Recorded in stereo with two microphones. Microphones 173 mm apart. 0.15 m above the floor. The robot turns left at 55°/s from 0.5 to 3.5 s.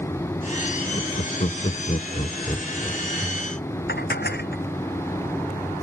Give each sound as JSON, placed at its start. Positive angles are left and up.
{"t": 0.9, "sound": "laughter", "side_deg": 30}
{"t": 3.9, "sound": "dishes clattering", "side_deg": 70}